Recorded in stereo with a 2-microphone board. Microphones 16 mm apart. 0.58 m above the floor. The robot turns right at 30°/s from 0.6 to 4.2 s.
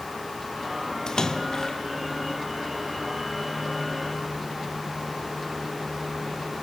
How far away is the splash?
About 1.0 m.